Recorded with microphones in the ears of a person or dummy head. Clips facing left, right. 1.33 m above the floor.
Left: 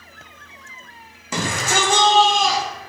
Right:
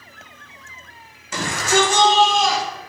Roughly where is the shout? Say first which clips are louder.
Right 3 dB; left.